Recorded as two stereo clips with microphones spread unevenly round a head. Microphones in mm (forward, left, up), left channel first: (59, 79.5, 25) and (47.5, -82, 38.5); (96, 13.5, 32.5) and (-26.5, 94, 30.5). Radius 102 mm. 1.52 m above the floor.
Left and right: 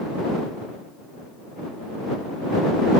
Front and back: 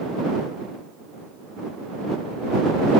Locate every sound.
Only background noise.